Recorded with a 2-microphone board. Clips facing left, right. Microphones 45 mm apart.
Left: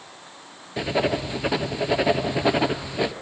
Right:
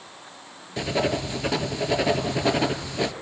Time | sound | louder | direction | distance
0.8 | writing | left 1 dB | 10° left (ahead or behind) | 1.0 m